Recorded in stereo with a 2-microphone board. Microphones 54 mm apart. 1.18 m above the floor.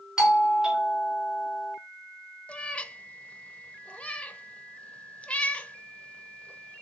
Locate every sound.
0.2 s a doorbell: 10° right (ahead or behind), 1.2 m
2.5 s a cat meowing: 25° left (ahead or behind), 0.6 m